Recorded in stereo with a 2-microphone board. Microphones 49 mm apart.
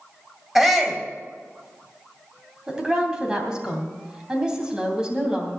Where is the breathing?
I don't hear breathing.